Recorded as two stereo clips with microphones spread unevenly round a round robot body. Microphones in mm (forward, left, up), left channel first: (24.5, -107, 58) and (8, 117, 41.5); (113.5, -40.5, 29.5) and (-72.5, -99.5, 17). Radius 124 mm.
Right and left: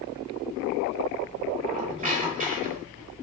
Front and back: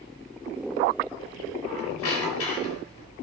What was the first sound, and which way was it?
A squeak, 35° left.